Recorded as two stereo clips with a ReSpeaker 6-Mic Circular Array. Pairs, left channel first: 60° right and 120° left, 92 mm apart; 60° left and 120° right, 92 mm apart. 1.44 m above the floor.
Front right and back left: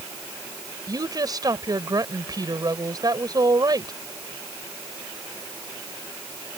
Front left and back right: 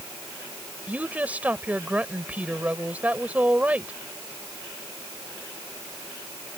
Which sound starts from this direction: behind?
A woman speaking, at 0.9 s.